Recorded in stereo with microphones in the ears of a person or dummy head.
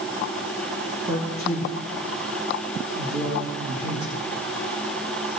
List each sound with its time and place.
1.1 s a man speaking: 30° right (ahead or behind), 3 m